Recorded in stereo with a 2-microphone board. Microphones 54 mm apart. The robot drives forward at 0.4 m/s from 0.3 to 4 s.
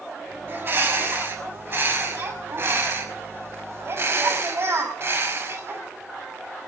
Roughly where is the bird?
Right.